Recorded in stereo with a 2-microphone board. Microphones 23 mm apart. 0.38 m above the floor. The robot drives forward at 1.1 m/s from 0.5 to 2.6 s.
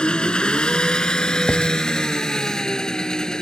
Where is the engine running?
45° left (ahead or behind); by 3.4 s 30° left (ahead or behind).